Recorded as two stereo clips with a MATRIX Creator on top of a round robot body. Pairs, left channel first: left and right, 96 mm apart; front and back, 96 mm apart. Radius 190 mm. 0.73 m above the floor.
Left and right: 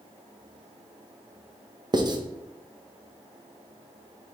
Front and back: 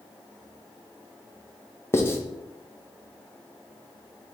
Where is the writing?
60° right, 0.8 m.